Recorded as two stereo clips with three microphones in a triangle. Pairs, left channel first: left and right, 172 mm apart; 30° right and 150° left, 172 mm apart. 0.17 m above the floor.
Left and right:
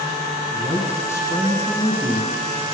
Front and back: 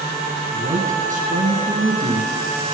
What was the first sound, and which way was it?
A man speaking, 160° left.